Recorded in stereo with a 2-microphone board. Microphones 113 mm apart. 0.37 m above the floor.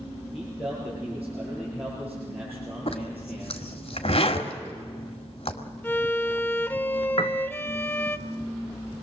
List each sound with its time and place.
0.3 s a man speaking: 10° right (ahead or behind), 7.5 m
2.9 s a zipper: 65° left (ahead or behind), 1.9 m
5.8 s a violin: 20° left (ahead or behind), 0.7 m
7.2 s a piano: 60° left (ahead or behind), 1.0 m